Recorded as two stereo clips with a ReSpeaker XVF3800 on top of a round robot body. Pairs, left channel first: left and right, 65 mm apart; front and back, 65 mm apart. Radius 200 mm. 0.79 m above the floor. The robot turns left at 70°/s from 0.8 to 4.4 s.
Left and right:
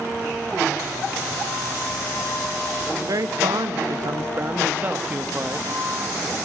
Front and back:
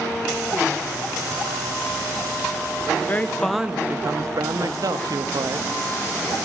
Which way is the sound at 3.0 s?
50° right.